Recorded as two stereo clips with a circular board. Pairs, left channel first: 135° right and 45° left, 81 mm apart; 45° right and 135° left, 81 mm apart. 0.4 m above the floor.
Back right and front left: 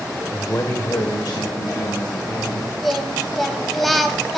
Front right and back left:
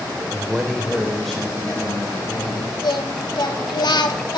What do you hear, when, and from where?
0.3 s a man speaking: 170° right, 0.8 m; by 2.7 s 125° right, 4 m
2.8 s singing: 45° right, 1.2 m